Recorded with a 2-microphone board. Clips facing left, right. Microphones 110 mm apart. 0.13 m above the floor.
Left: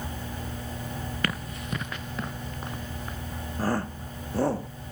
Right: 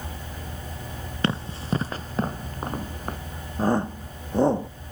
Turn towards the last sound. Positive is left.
turn(degrees=-20)  # may be behind; listen again after turning